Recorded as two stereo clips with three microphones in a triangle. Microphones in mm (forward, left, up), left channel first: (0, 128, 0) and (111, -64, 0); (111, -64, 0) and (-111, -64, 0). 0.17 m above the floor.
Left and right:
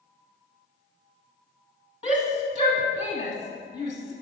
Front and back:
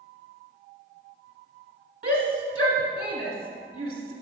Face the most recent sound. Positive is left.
turn(degrees=170)